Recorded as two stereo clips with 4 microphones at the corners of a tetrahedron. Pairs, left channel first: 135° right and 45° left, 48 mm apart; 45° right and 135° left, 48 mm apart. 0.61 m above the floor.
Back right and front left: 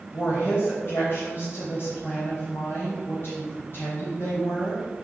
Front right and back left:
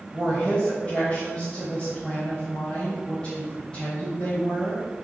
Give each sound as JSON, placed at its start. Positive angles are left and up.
{"t": 0.1, "sound": "a woman speaking", "azimuth_deg": -115, "distance_m": 3.5}